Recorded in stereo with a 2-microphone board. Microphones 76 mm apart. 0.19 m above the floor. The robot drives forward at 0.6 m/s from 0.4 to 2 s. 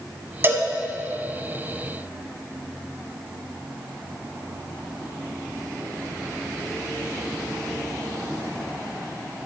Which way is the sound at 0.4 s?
30° right (ahead or behind).